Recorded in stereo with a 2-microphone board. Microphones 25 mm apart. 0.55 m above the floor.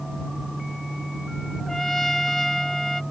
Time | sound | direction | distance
1.7 | a trumpet | 15° left (ahead or behind) | ?